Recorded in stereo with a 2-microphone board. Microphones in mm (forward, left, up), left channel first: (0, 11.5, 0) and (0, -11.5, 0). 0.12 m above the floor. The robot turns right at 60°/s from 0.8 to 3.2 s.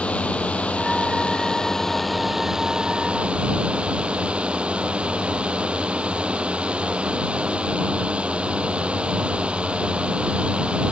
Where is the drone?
100° left; by 10.9 s 115° right.